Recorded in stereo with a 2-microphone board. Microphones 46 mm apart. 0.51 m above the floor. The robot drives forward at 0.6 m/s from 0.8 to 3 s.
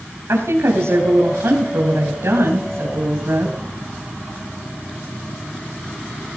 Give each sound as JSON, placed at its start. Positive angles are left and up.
{"t": 0.3, "sound": "a woman speaking", "side_deg": -75, "distance_m": 3.5}